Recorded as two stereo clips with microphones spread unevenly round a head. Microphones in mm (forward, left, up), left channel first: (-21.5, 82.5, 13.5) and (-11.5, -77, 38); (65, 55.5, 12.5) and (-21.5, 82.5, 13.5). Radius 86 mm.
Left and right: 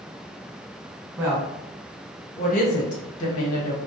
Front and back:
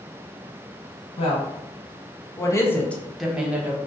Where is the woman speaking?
5° right, 1.1 m; by 3.8 s 95° left, 0.9 m.